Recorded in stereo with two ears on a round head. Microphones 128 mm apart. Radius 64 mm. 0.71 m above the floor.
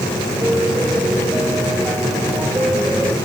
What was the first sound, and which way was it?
A piano, 10° right (ahead or behind).